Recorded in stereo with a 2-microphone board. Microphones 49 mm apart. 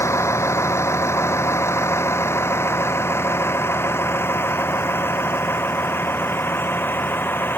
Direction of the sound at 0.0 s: 70° left (ahead or behind).